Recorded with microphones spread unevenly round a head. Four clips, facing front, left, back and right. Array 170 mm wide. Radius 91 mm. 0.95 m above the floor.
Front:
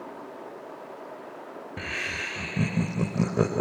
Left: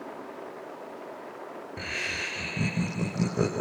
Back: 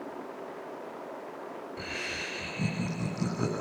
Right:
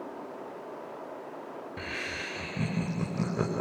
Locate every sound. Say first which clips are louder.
1.8 s laughter: left 3 dB, front 6 dB; 5° left, 4.5 m